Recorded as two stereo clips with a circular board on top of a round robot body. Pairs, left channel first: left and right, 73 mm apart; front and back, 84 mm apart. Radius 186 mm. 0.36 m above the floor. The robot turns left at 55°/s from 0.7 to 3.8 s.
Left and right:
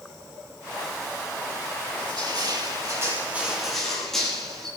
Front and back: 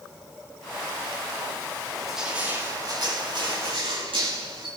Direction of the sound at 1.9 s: 85° right.